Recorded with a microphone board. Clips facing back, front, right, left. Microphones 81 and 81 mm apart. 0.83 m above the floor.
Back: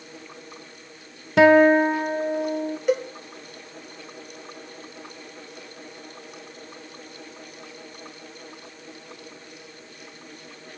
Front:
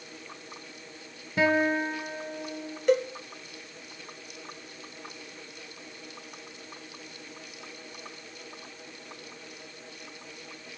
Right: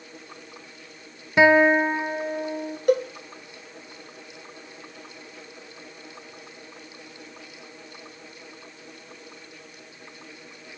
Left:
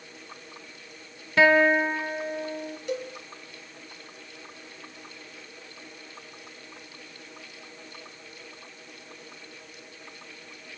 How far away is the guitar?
About 0.7 m.